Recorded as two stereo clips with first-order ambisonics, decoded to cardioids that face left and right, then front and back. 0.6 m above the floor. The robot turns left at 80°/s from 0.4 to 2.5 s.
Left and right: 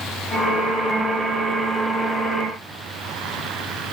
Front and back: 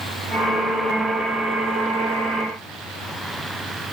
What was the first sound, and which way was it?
Only background noise.